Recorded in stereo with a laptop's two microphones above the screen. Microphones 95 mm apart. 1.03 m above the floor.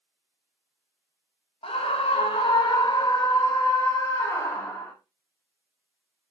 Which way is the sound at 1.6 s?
80° left.